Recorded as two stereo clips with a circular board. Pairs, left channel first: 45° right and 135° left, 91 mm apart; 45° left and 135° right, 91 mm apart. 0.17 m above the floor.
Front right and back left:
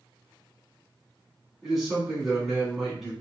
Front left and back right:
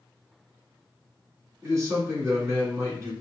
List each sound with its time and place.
1.6 s a man speaking: 140° right, 1.7 m